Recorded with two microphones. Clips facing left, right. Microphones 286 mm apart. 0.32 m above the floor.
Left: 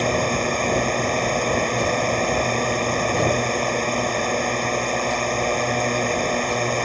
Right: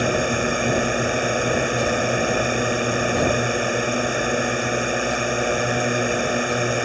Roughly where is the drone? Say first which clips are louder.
Right 1 dB; centre.